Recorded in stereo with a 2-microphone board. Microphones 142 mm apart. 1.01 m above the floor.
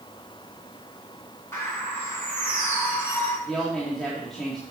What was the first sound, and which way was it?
A bird, 20° left (ahead or behind).